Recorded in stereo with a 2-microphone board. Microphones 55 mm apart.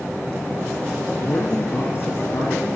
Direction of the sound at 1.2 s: 50° left (ahead or behind).